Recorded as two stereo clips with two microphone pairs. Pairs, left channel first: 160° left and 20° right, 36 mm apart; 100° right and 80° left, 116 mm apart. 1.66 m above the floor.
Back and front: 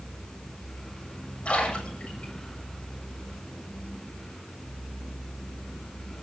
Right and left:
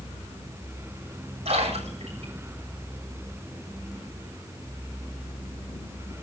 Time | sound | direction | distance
1.4 | a splash | 105° left | 7.5 m